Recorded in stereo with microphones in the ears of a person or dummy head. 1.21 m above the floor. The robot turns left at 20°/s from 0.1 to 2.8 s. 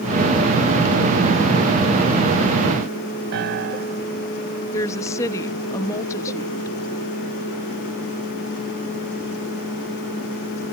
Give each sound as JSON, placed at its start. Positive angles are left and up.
{"t": 3.3, "sound": "a piano", "side_deg": -65}
{"t": 4.7, "sound": "a woman speaking", "side_deg": 20}